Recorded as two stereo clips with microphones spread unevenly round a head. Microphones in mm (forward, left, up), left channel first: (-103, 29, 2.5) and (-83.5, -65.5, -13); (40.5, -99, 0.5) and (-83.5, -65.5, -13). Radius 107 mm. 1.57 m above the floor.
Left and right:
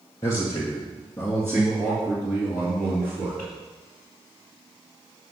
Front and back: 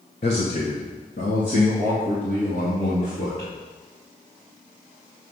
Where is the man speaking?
35° left, 0.8 m; by 3.5 s 30° left, 2.5 m.